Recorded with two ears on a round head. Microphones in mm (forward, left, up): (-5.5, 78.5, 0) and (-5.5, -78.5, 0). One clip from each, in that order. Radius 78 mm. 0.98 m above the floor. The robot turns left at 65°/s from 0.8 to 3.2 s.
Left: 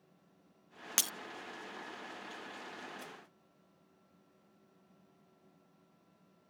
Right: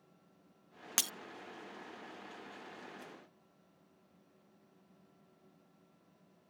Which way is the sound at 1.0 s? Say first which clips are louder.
Left 1 dB; 10° left (ahead or behind).